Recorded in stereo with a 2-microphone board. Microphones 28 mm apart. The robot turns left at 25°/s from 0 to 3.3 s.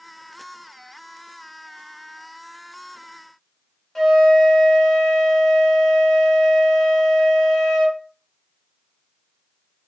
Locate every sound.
4.0 s a flute: 15° left (ahead or behind), 0.8 m